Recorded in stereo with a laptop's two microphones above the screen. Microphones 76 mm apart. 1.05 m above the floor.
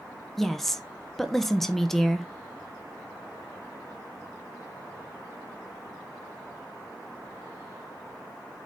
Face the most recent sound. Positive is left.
turn(degrees=5)  # may be behind; listen again after turning